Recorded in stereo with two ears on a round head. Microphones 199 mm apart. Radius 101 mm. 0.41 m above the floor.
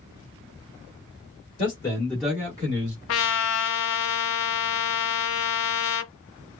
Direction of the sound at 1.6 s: 25° left (ahead or behind).